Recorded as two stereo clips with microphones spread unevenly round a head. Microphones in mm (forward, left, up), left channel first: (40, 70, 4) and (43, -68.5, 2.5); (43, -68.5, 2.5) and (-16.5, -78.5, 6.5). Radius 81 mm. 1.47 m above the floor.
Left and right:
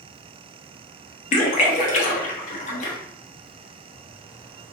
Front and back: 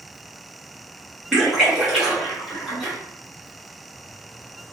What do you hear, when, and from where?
1.3 s a splash: 100° left, 0.8 m